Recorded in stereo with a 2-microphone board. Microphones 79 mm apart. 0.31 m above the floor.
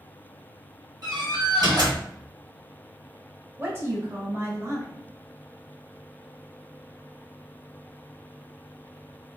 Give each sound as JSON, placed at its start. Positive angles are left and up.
{"t": 1.0, "sound": "a door slam", "side_deg": -50, "distance_m": 1.6}
{"t": 3.6, "sound": "a woman speaking", "side_deg": -30, "distance_m": 1.2}